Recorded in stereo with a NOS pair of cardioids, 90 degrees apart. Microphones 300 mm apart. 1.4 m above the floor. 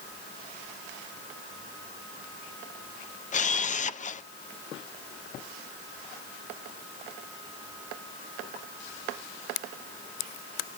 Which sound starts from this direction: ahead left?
A camera shutter, at 3.3 s.